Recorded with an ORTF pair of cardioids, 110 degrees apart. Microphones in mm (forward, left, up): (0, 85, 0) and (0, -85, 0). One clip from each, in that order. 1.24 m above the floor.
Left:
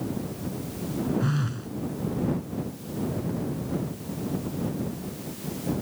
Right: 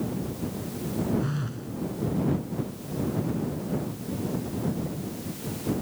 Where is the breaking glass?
I don't hear breaking glass.